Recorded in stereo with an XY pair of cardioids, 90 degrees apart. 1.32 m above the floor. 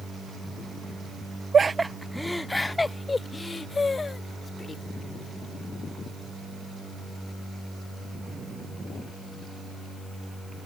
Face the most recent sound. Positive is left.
turn(degrees=35)